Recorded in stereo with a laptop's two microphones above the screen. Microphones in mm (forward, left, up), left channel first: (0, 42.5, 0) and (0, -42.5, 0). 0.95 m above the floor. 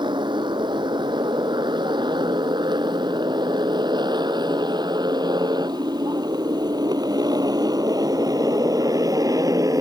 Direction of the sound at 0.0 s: 65° right (ahead or behind).